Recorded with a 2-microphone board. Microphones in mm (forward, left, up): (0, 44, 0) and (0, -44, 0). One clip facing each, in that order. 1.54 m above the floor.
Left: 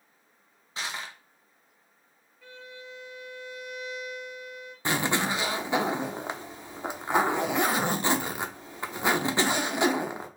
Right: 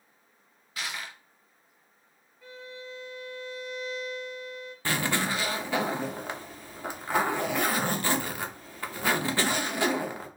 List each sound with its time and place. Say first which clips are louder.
0.8 s crushing: left 1 dB; 25° left (ahead or behind), 0.6 m
2.4 s a violin: right 2 dB; 5° right (ahead or behind), 1.4 m
4.8 s a zipper: left 2 dB; 20° left (ahead or behind), 0.5 m